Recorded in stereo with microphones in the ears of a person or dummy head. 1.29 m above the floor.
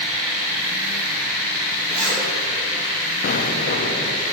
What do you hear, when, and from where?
1.9 s a zipper: 35° right (ahead or behind), 4 m
3.2 s an explosion: 55° left (ahead or behind), 1.3 m